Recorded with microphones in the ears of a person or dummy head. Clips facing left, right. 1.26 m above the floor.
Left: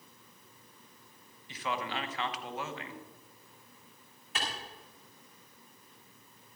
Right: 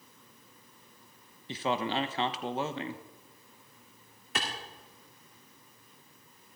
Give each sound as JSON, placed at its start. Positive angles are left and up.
{"t": 1.5, "sound": "a man speaking", "side_deg": -30, "distance_m": 0.9}
{"t": 4.3, "sound": "a clap", "side_deg": -55, "distance_m": 2.5}